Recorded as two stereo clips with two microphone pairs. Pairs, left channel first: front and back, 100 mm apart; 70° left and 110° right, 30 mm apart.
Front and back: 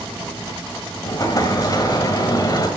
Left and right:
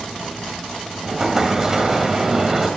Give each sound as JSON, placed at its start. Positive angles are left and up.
{"t": 1.0, "sound": "an explosion", "azimuth_deg": -45, "distance_m": 1.8}